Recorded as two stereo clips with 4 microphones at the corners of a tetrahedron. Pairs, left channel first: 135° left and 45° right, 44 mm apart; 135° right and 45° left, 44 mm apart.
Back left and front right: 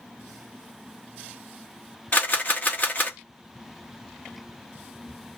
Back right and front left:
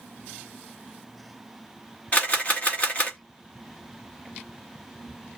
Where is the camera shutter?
175° left, 1.0 m.